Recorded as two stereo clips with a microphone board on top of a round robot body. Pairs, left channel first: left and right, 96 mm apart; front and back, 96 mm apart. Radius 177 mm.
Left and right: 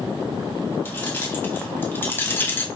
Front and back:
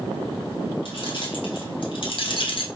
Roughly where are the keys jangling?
Ahead left.